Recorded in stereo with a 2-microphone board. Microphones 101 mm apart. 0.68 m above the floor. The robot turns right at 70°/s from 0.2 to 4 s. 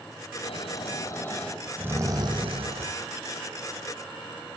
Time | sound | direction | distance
0.4 | snoring | 100° left | 3.5 m